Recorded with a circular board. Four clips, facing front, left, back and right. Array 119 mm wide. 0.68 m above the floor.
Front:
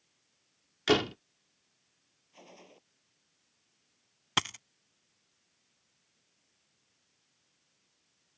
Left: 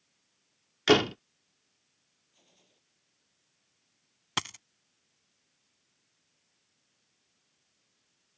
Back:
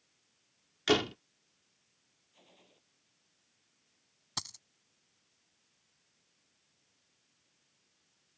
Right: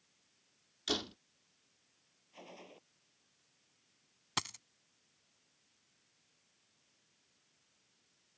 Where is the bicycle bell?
I don't hear a bicycle bell.